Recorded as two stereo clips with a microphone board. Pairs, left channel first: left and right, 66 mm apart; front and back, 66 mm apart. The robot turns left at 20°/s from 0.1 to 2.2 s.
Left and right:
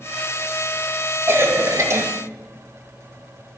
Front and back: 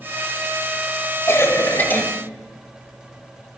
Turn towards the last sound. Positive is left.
turn(degrees=-60)